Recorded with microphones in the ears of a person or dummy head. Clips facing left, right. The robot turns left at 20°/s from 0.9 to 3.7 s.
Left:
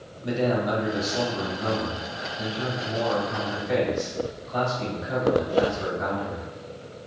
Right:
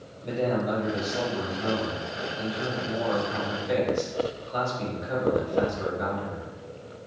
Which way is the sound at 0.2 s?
10° left.